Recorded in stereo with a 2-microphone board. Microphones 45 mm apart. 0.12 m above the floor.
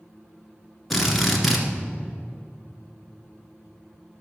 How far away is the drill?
About 1.4 m.